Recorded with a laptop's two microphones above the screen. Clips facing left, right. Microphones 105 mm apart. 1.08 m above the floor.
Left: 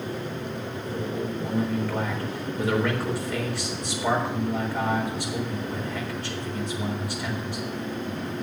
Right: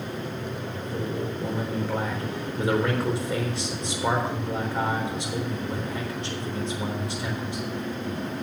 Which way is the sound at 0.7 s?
25° right (ahead or behind).